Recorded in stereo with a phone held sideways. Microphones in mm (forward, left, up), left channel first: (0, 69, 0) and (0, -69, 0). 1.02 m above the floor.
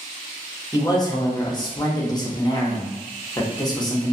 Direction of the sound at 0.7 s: 25° left (ahead or behind).